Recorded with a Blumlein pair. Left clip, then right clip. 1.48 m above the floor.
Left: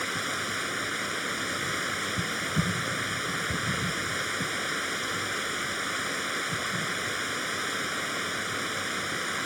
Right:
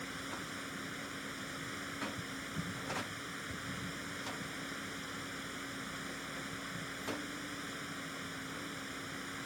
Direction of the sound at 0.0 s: 55° left.